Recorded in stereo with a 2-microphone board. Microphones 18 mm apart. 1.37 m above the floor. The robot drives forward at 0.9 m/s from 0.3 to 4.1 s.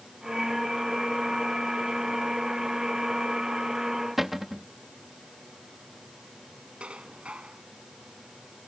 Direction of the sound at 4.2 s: 10° right (ahead or behind).